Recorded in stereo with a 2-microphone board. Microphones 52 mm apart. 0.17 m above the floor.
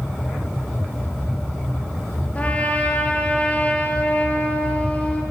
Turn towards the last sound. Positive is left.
turn(degrees=25)  # may be behind; listen again after turning